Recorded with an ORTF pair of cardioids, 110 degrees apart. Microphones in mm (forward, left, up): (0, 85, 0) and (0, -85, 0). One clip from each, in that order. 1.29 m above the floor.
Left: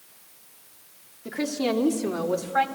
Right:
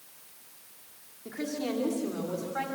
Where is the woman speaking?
45° left, 3 m; by 2.7 s 55° left, 4 m.